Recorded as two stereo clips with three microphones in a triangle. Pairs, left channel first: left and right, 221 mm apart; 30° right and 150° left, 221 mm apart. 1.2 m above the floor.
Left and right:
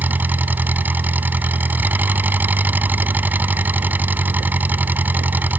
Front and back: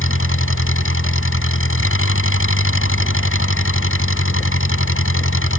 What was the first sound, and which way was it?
An engine running, 5° right.